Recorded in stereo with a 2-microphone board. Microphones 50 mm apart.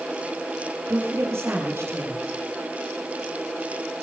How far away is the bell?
I don't hear a bell.